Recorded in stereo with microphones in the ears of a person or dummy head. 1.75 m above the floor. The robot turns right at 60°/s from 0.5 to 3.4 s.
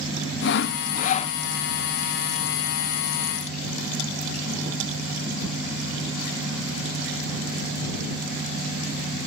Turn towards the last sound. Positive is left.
turn(degrees=-90)